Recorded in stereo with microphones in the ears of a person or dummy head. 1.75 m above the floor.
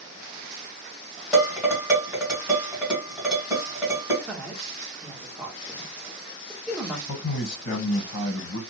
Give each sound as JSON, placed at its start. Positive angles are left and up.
{"t": 1.3, "sound": "dishes clattering", "side_deg": -5, "distance_m": 1.3}
{"t": 4.3, "sound": "a woman speaking", "side_deg": -5, "distance_m": 0.9}
{"t": 7.1, "sound": "a man speaking", "side_deg": 75, "distance_m": 1.3}